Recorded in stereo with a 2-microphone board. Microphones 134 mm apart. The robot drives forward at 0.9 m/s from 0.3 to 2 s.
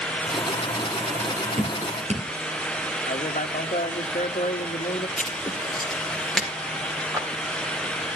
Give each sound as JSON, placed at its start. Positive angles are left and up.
{"t": 1.6, "sound": "dripping", "side_deg": -50, "distance_m": 4.0}
{"t": 3.1, "sound": "a man speaking", "side_deg": 75, "distance_m": 1.2}
{"t": 5.2, "sound": "writing", "side_deg": 0, "distance_m": 3.5}
{"t": 7.1, "sound": "a clap", "side_deg": -25, "distance_m": 4.5}